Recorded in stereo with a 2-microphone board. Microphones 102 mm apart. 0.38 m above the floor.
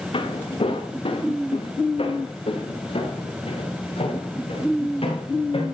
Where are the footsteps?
75° left (ahead or behind), 2 m.